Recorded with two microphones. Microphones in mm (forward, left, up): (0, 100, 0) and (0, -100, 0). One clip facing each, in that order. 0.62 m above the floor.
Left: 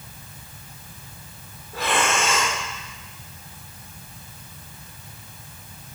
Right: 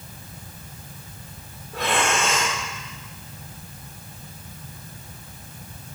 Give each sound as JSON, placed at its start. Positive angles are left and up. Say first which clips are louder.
{"t": 1.7, "sound": "breathing", "louder": "even", "side_deg": 0, "distance_m": 2.5}